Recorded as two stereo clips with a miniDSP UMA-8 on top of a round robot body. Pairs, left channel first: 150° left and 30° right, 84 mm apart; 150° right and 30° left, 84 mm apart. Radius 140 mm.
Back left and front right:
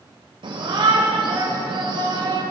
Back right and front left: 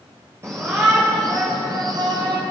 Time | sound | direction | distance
0.4 | a shout | 30° right | 3.5 m